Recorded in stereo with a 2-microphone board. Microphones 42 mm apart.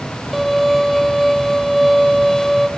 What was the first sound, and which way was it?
A violin, centre (ahead or behind).